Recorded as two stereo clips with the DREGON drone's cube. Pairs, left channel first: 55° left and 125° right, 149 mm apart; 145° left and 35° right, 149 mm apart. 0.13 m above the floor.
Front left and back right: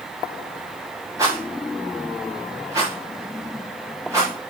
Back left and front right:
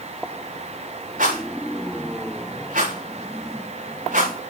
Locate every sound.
1.2 s a rattle: 55° right, 5.5 m